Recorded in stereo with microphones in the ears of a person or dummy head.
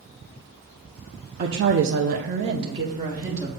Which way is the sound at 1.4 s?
45° right (ahead or behind).